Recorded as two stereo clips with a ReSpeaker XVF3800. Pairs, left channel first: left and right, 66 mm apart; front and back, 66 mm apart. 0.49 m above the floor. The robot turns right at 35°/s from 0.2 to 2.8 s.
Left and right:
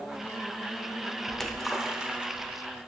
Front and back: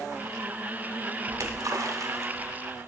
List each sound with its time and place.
1.3 s a splash: 170° left, 0.6 m; by 2.6 s 140° right, 0.6 m